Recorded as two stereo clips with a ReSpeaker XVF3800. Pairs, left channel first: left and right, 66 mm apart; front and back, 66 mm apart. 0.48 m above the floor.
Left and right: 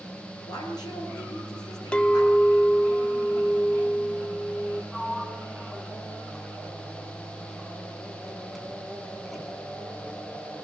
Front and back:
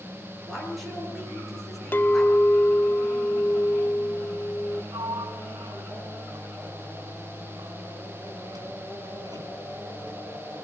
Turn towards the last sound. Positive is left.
turn(degrees=175)